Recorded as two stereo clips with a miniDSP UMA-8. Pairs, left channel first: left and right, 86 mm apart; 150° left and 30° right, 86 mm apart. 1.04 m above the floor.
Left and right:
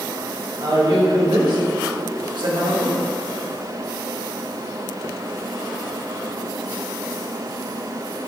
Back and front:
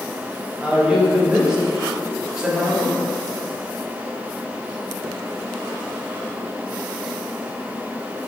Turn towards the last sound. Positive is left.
turn(degrees=-110)